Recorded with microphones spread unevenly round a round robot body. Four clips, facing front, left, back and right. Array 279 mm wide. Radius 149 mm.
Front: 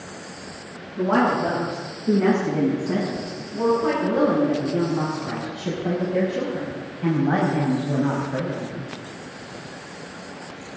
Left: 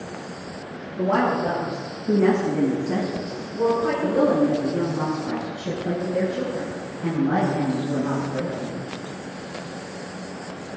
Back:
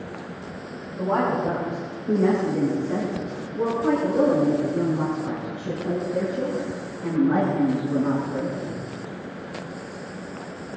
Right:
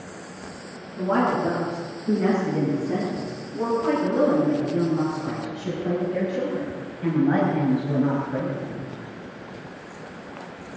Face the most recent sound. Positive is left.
turn(degrees=-30)